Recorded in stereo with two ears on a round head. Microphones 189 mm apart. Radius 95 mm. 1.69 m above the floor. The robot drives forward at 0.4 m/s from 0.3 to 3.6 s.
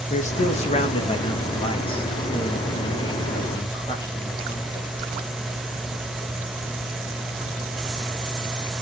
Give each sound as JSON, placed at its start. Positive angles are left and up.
{"t": 0.1, "sound": "a man speaking", "side_deg": 35, "distance_m": 1.8}